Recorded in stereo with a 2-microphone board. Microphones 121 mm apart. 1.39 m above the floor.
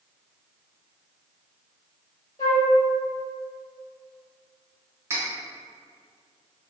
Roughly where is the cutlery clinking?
Right.